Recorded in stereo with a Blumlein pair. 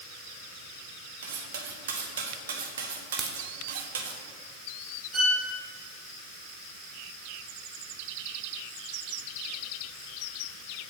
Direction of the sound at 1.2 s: 60° right.